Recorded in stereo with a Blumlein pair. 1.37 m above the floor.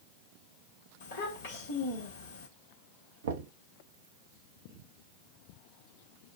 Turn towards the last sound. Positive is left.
turn(degrees=-65)